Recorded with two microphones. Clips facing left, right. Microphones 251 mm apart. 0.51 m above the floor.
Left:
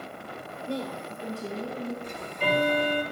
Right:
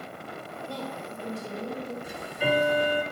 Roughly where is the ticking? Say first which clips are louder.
Right 5 dB; centre.